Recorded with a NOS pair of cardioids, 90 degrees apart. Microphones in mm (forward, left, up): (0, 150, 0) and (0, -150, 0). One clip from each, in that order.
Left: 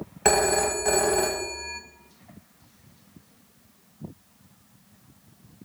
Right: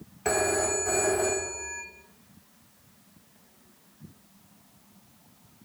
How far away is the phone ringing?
About 0.9 m.